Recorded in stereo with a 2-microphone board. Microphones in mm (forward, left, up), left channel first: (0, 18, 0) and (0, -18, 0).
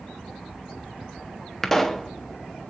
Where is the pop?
5° left (ahead or behind), 0.9 m.